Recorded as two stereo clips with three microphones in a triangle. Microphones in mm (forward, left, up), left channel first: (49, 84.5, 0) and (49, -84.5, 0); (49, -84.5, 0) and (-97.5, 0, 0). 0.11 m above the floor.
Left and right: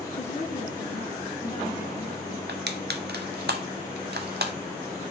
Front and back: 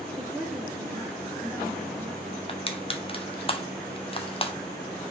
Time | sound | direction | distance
0.1 | a woman speaking | 70° left | 2 m
2.5 | crushing | 85° right | 1.1 m